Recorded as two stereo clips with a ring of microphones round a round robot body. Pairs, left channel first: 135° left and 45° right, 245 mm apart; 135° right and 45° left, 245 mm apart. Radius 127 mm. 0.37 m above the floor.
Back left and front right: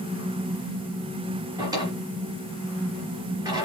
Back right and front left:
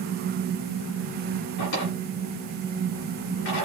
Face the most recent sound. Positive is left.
turn(degrees=-120)